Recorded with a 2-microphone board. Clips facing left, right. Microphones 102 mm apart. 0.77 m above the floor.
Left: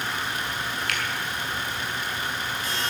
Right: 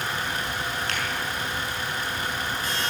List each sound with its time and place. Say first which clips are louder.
0.9 s a finger snap: even; 30° right (ahead or behind), 6 m